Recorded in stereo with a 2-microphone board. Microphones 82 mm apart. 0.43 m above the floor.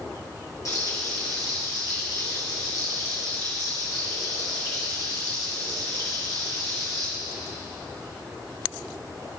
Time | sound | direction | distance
0.7 | frying | 50° left (ahead or behind) | 2.5 m